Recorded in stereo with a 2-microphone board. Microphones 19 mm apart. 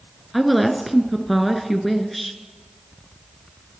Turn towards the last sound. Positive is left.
turn(degrees=0)  # may be behind; listen again after turning